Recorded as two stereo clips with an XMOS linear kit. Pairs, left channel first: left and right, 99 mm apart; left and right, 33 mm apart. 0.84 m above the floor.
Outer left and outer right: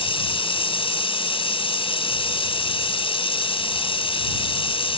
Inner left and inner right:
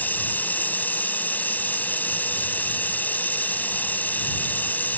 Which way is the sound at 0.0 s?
65° left (ahead or behind).